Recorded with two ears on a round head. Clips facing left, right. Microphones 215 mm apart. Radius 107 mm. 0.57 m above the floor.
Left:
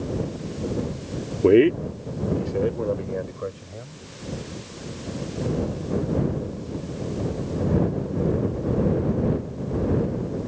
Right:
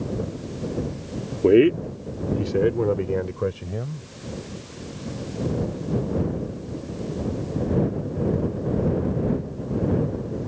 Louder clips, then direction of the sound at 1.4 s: Even; 5° left (ahead or behind).